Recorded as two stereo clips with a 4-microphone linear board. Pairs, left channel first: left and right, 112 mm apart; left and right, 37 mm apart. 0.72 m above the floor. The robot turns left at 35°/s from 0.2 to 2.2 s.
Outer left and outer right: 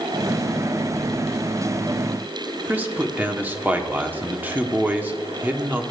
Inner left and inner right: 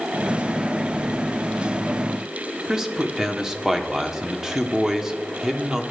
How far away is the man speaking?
About 1.2 m.